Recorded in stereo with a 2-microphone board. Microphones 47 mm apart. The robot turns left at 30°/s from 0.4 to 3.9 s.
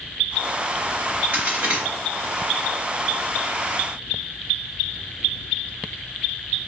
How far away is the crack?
About 1.8 m.